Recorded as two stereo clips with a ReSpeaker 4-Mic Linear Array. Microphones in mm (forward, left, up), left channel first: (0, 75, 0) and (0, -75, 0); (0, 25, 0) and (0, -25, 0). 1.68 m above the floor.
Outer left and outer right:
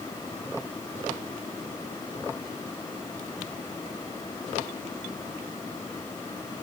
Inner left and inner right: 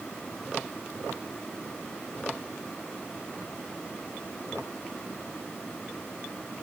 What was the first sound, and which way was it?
Only background noise.